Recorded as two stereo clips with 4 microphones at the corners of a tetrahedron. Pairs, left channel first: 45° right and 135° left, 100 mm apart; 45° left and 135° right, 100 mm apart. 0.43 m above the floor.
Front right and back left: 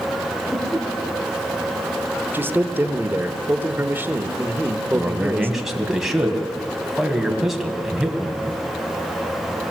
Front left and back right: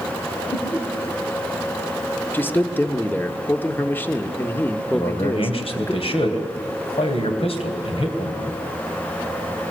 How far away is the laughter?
About 4 m.